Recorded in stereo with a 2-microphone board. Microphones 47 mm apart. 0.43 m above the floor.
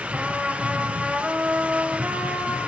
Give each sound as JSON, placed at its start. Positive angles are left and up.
{"t": 0.1, "sound": "a trumpet", "side_deg": -25, "distance_m": 1.7}